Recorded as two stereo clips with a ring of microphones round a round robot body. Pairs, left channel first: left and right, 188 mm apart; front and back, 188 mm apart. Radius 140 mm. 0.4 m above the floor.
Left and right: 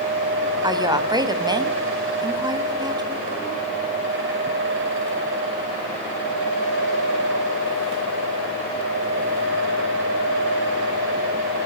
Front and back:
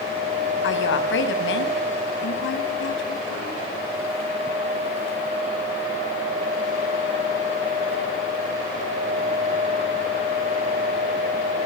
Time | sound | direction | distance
0.6 | a woman speaking | 20° right | 4 m